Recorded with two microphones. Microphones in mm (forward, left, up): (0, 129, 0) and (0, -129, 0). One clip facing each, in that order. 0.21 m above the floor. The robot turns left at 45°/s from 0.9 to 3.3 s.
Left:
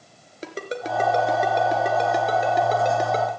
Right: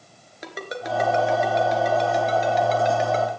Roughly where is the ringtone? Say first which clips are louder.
Left 2 dB; left.